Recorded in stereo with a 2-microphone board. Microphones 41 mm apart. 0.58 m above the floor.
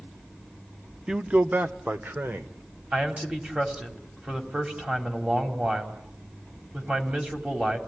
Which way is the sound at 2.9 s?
25° right (ahead or behind).